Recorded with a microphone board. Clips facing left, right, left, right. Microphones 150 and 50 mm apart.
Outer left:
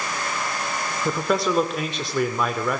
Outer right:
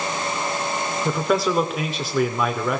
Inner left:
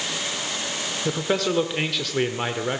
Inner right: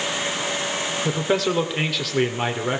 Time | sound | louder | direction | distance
1.1 | a man speaking | outer right 1 dB, inner right 1 dB | centre (ahead or behind) | 1.0 m